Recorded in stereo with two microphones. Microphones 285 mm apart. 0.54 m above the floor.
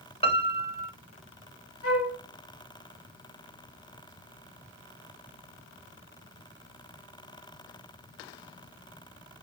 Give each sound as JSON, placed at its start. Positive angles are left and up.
{"t": 0.2, "sound": "a piano", "side_deg": 20, "distance_m": 0.5}
{"t": 1.8, "sound": "a flute", "side_deg": 60, "distance_m": 0.6}